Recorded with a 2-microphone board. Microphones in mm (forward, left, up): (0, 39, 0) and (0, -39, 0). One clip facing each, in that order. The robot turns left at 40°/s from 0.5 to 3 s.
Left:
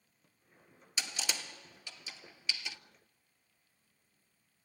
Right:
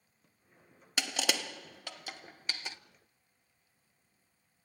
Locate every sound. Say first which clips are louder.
1.0 s crushing: right 6 dB; 70° right (ahead or behind), 0.6 m; by 2.8 s 35° right (ahead or behind), 0.6 m